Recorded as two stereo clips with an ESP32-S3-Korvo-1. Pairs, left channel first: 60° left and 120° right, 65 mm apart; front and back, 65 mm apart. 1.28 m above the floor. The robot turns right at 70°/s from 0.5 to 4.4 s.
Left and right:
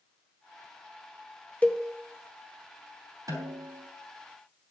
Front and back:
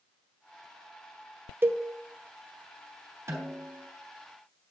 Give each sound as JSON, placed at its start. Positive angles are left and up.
{"t": 1.6, "sound": "a cowbell", "azimuth_deg": 125, "distance_m": 0.9}
{"t": 3.3, "sound": "a snare drum", "azimuth_deg": -140, "distance_m": 3.0}